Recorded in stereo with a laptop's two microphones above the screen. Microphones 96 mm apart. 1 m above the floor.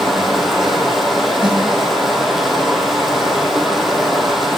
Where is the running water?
Centre (ahead or behind), 4 m.